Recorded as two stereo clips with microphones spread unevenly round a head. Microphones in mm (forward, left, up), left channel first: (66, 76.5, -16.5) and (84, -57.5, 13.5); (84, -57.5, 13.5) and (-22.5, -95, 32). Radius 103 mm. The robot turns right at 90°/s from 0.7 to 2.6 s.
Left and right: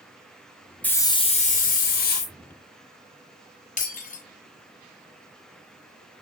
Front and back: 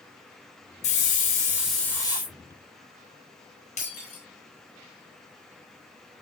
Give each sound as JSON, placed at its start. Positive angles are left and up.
{"t": 0.8, "sound": "a hiss", "azimuth_deg": 10, "distance_m": 2.0}
{"t": 3.8, "sound": "breaking glass", "azimuth_deg": 75, "distance_m": 5.0}